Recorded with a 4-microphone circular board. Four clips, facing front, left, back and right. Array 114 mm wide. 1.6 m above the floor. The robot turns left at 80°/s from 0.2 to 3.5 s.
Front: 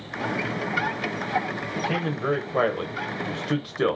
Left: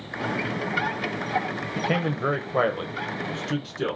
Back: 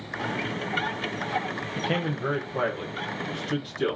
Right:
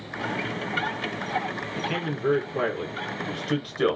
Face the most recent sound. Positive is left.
turn(degrees=-20)